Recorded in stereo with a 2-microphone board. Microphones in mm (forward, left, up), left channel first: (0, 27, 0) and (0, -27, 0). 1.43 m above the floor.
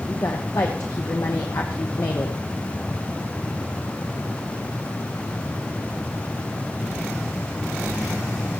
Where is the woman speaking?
60° left (ahead or behind), 1.0 m.